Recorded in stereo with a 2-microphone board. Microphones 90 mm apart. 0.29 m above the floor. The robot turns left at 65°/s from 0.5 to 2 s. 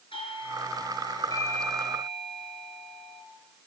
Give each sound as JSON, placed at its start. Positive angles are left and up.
{"t": 0.1, "sound": "a doorbell", "azimuth_deg": 95, "distance_m": 6.5}